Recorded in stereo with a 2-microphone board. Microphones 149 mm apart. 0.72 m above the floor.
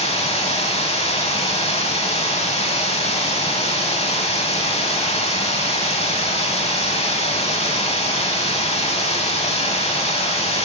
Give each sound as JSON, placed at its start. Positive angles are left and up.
{"t": 0.0, "sound": "running water", "side_deg": 45, "distance_m": 0.7}